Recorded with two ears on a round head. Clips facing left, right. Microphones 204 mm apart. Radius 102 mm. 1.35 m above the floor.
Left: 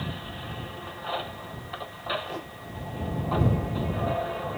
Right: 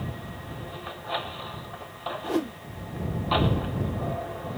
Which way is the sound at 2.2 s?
70° right (ahead or behind).